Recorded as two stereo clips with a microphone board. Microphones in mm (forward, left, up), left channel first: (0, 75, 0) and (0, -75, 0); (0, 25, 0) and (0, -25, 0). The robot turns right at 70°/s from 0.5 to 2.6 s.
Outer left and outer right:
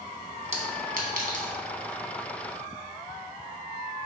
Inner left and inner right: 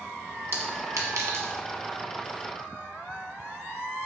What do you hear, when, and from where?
0.5 s a clink: 45° right (ahead or behind), 1.0 m; by 1.5 s 55° right (ahead or behind), 1.0 m